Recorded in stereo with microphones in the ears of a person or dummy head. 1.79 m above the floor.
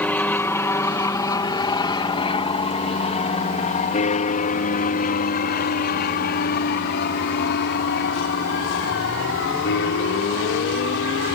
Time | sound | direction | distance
0.0 | an aircraft | 5° left (ahead or behind) | ?